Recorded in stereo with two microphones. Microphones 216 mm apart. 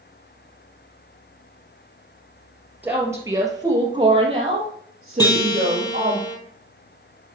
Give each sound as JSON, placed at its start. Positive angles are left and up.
{"t": 2.8, "sound": "a woman speaking", "side_deg": -10, "distance_m": 2.5}
{"t": 5.2, "sound": "a guitar", "side_deg": 20, "distance_m": 1.6}